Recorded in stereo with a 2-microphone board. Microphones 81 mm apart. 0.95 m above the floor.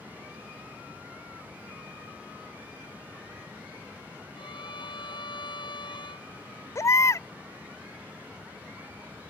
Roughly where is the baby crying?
Left.